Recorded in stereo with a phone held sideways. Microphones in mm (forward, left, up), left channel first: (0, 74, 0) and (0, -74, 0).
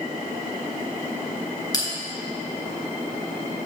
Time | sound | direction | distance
1.7 | a bell | 30° left (ahead or behind) | 3.5 m